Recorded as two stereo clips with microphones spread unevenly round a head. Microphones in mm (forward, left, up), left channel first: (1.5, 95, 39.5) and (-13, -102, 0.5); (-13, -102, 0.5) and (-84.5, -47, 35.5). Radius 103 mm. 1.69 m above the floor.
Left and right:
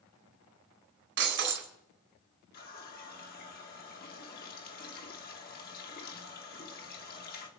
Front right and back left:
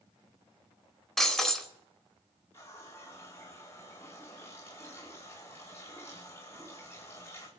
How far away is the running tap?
About 2.5 m.